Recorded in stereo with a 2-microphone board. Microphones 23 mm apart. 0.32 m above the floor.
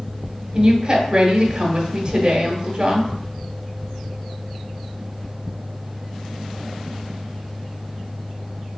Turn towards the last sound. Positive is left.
turn(degrees=-20)  # may be behind; listen again after turning